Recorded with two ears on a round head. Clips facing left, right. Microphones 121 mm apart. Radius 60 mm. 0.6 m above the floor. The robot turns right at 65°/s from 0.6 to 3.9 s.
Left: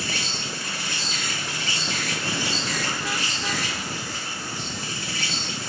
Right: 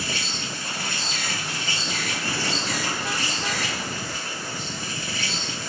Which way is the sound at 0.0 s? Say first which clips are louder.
Even; 45° left.